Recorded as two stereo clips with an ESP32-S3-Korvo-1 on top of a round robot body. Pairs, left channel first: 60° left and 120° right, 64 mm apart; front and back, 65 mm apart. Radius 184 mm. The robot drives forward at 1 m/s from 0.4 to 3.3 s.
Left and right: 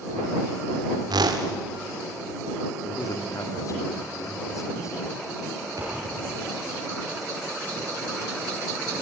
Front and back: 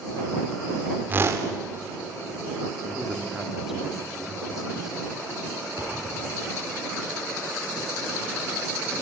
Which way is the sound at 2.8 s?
85° left.